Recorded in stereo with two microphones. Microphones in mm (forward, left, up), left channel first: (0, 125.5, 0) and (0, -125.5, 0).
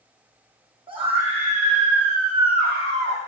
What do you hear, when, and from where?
0.9 s a scream: 20° right (ahead or behind), 5 m; by 3.2 s 45° right (ahead or behind), 4 m